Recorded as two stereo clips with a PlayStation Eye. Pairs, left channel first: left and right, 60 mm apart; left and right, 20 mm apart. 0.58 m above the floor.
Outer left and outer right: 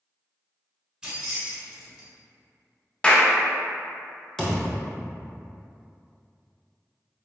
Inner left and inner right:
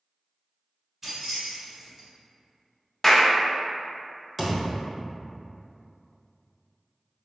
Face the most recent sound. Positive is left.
turn(degrees=5)  # may be behind; listen again after turning